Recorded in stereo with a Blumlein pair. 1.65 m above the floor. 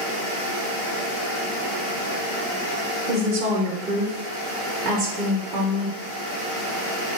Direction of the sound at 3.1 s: 25° right.